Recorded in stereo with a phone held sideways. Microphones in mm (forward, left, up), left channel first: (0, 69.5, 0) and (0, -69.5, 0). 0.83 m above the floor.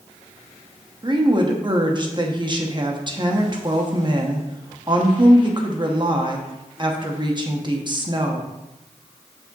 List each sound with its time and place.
1.0 s a woman speaking: 35° right (ahead or behind), 1.0 m